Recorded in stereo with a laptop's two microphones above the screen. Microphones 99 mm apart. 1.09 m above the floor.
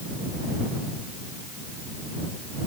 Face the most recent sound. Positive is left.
No sound to turn to.